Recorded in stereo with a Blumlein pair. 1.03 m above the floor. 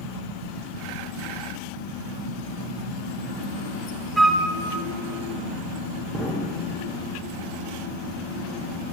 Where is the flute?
Straight ahead, 0.6 m.